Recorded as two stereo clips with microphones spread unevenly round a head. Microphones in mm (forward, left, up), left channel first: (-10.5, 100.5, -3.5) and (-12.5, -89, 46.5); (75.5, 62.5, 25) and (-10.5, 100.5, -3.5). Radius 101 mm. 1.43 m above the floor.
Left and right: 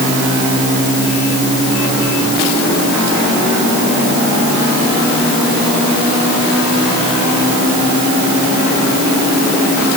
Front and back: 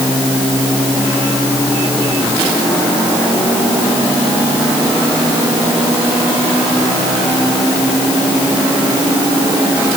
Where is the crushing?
I don't hear crushing.